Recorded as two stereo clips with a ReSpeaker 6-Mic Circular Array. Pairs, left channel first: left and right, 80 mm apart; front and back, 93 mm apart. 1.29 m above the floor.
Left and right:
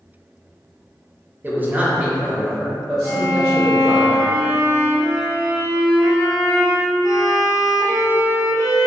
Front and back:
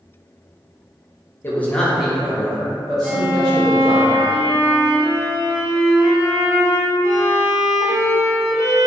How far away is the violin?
About 0.8 m.